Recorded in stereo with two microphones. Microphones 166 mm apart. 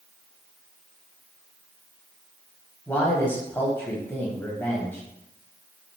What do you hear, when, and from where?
2.9 s a man speaking: 10° left (ahead or behind), 1.0 m